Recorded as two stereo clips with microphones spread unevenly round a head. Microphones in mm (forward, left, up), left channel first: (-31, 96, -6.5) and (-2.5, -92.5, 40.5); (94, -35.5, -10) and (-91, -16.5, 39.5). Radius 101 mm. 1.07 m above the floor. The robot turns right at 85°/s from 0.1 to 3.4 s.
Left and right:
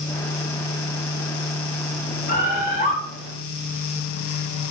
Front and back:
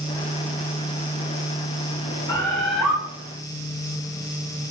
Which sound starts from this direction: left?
A bird, at 2.3 s.